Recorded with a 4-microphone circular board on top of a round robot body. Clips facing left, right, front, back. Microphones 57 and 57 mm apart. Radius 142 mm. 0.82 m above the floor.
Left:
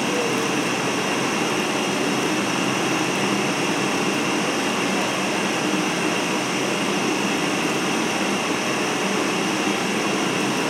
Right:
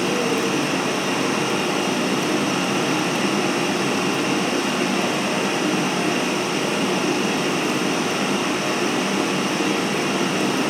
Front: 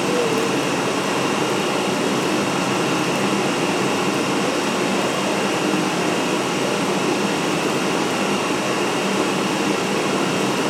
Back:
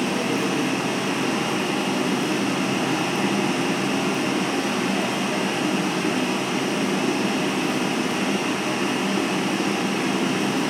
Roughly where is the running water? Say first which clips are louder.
Right 1 dB, front 4 dB; ahead.